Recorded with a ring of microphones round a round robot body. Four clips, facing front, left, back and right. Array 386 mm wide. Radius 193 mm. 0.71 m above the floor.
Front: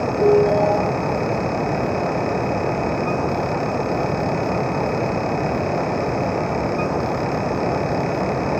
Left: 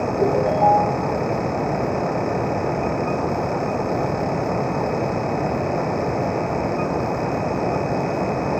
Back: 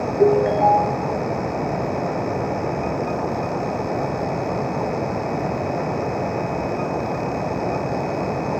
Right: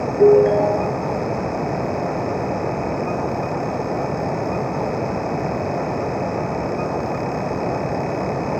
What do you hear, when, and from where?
0.2 s a ringtone: 130° right, 4.5 m